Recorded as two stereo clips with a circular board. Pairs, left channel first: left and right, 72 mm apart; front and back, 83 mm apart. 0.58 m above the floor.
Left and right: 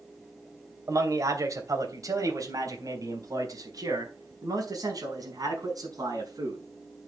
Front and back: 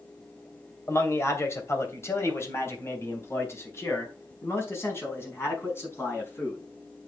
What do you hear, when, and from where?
0.9 s a man speaking: 55° right, 2.5 m; by 6.6 s 60° right, 6 m